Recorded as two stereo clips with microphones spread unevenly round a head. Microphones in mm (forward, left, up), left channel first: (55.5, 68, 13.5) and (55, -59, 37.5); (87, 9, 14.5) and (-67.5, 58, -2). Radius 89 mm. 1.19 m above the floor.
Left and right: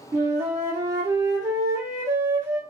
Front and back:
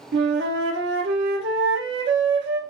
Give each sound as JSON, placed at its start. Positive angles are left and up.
{"t": 0.1, "sound": "a flute", "azimuth_deg": -160, "distance_m": 0.5}